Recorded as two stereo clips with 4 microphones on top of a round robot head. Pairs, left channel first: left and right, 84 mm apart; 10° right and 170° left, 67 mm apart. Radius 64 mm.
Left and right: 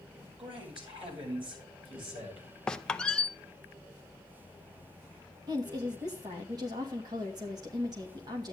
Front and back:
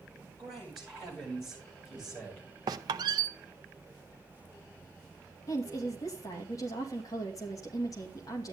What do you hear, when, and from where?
0.4 s a man speaking: 100° right, 7.5 m; by 2.5 s 90° right, 6 m
2.7 s a squeak: 170° left, 0.6 m
5.5 s a woman speaking: 50° right, 2.5 m